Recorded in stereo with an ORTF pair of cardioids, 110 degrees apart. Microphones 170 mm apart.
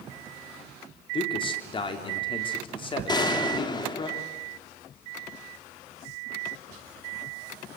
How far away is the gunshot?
About 2.5 m.